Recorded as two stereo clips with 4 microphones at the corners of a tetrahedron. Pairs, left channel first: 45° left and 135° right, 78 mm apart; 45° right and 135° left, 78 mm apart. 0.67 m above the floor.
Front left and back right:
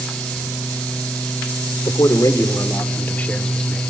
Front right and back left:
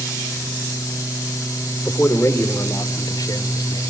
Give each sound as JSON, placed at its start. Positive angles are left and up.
{"t": 1.9, "sound": "a man speaking", "azimuth_deg": 20, "distance_m": 2.0}